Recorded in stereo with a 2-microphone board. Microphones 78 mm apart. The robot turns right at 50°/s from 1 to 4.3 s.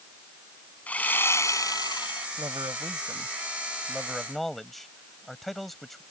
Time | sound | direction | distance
0.9 | sawing | 20° left | ?
2.4 | a man speaking | 95° right | ?